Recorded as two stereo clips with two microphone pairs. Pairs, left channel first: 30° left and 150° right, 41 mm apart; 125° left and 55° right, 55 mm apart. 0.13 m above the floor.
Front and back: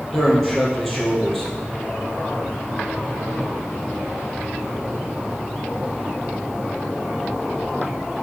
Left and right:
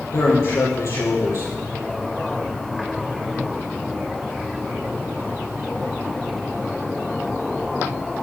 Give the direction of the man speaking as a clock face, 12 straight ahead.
8 o'clock.